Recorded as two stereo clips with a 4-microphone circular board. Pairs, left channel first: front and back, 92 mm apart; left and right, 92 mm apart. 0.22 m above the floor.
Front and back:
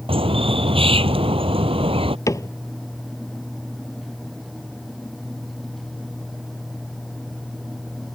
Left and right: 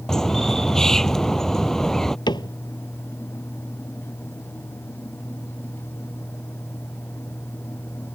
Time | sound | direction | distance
0.1 | a bird | 175° left | ?
2.3 | a cupboard door | 50° left | ?